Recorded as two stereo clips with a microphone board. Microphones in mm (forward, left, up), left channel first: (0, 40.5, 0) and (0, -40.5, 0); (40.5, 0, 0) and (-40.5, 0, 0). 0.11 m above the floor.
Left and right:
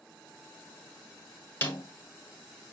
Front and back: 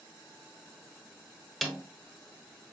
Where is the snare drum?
80° left, 1.0 m.